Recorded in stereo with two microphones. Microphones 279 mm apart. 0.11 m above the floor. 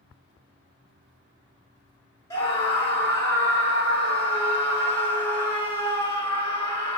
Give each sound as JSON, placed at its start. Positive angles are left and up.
{"t": 2.3, "sound": "a scream", "side_deg": 10, "distance_m": 1.2}